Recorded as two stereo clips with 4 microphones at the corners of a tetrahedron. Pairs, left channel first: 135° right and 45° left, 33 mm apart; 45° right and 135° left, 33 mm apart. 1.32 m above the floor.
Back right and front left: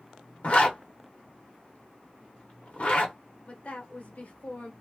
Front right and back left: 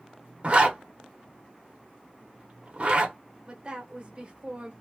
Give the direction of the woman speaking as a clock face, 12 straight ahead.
6 o'clock.